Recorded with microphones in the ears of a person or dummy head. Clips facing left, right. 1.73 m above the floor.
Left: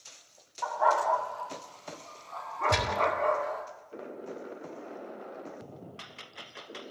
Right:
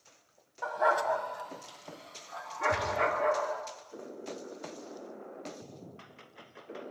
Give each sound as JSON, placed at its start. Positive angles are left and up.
{"t": 0.6, "sound": "a dog barking", "side_deg": -30, "distance_m": 2.5}
{"t": 2.7, "sound": "a gunshot", "side_deg": 75, "distance_m": 5.5}